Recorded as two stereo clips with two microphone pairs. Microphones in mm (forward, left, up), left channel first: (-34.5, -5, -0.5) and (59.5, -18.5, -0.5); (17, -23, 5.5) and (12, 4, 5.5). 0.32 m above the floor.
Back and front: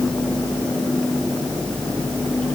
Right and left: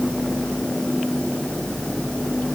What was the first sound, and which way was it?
Only background noise.